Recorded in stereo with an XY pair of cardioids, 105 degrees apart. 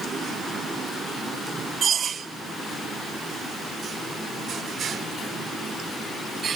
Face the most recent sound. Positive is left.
No sound to turn to.